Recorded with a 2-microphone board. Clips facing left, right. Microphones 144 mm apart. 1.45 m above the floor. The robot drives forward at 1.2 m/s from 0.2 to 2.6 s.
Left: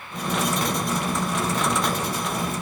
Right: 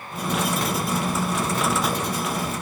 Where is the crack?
No crack in this recording.